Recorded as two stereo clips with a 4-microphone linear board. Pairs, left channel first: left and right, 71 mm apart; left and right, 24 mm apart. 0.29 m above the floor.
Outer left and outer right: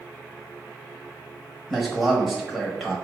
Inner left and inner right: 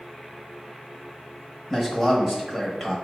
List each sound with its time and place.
1.7 s a man speaking: 5° left (ahead or behind), 1.0 m